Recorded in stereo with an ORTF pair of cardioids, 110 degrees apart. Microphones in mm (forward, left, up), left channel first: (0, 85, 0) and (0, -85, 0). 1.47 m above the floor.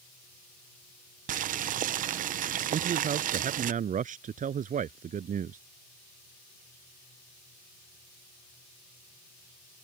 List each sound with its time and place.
1.3 s boiling: 55° right
2.7 s a man speaking: 50° right